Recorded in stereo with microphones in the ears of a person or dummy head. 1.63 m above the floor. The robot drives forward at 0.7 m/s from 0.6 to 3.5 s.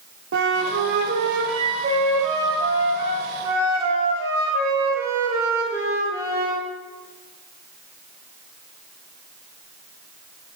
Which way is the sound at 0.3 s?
65° right (ahead or behind).